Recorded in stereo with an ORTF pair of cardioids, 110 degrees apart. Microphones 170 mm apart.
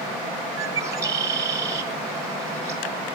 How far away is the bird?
About 1.2 m.